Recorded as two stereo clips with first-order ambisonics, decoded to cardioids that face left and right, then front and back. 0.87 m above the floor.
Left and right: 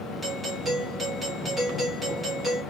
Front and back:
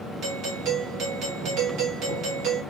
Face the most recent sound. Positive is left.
turn(degrees=175)